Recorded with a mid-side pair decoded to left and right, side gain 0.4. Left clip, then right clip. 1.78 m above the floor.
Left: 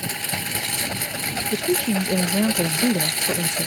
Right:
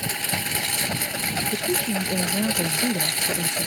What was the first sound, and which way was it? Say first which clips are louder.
A lawn mower: right 1 dB; 10° right.